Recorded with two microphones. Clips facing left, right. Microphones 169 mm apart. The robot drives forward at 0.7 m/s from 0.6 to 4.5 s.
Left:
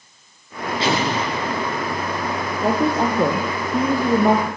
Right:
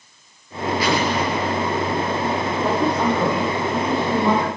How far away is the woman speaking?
About 4.5 m.